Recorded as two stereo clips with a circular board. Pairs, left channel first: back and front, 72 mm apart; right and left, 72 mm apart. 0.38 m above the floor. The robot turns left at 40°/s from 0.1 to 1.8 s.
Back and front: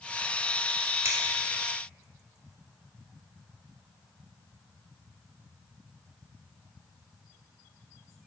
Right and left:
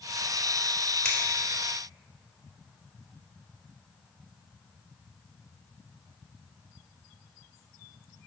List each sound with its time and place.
1.1 s scissors: 20° right, 1.8 m; by 1.2 s 25° right, 1.8 m